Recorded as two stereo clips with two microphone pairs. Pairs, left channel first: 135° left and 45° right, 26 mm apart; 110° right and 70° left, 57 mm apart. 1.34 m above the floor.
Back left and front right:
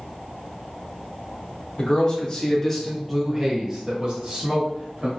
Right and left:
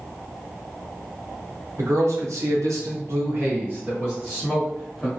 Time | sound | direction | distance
1.8 | a man speaking | 90° left | 1.0 m